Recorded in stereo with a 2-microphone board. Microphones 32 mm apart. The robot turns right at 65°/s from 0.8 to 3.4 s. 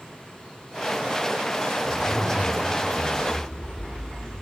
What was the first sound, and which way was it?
A zipper, 5° left.